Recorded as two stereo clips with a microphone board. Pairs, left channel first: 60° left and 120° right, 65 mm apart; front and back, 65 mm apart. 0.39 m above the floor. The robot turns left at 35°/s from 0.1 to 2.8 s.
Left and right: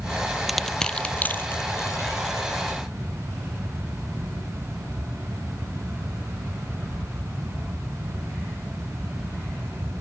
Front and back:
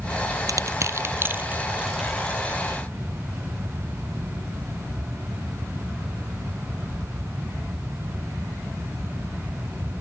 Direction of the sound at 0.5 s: 150° left.